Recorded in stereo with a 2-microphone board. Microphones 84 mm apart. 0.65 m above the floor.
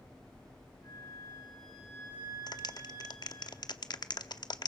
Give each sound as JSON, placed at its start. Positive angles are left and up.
{"t": 0.8, "sound": "a flute", "side_deg": 50, "distance_m": 7.5}
{"t": 2.5, "sound": "a clap", "side_deg": 55, "distance_m": 0.9}